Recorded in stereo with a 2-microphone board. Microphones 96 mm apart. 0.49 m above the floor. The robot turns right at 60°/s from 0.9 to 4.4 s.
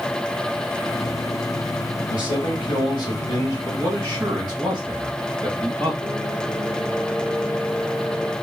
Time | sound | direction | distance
2.1 | a man speaking | 60° left | 2 m
3.6 | a man speaking | 165° right | 1.8 m
6.0 | a microwave | 35° right (ahead or behind) | 1.5 m